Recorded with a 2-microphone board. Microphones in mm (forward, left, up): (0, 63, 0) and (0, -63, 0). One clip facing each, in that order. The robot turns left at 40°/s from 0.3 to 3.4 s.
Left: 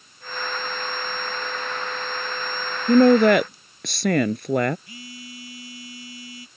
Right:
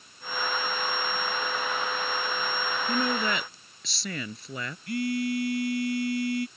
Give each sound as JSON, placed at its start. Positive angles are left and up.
{"t": 2.9, "sound": "a woman speaking", "side_deg": 65}
{"t": 4.9, "sound": "a phone buzzing", "side_deg": -65}